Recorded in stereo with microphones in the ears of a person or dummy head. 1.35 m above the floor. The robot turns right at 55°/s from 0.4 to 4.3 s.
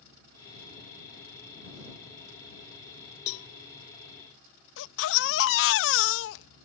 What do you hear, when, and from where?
3.3 s a cowbell: 60° left (ahead or behind)
4.8 s a baby crying: 70° left (ahead or behind)